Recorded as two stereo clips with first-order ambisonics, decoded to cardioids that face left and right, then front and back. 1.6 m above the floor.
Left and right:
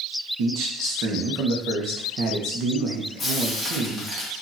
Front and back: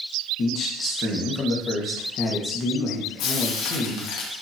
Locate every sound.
0.4 s a man speaking: 55° right, 1.1 m
3.2 s frying: 15° left, 1.2 m